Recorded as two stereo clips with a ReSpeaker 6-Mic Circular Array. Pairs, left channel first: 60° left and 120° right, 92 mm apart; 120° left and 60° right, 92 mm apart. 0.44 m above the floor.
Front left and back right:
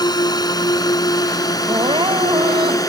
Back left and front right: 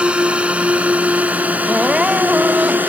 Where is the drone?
15° left; by 2.9 s 10° left.